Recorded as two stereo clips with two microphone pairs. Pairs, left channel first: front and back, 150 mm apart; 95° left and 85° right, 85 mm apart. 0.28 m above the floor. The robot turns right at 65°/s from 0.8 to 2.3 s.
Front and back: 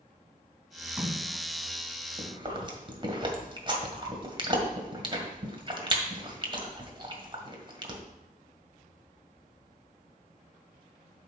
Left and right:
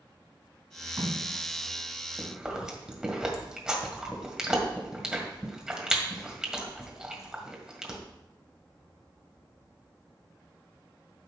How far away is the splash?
About 2 m.